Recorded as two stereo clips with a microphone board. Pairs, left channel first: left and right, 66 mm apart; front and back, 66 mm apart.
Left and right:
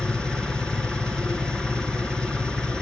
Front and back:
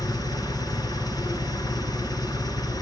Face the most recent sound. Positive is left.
turn(degrees=10)